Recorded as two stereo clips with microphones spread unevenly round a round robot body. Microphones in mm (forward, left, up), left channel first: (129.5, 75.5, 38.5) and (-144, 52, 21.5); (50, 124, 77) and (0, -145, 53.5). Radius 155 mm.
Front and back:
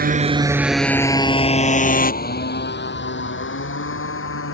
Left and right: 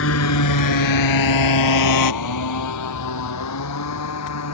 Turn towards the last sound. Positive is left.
turn(degrees=45)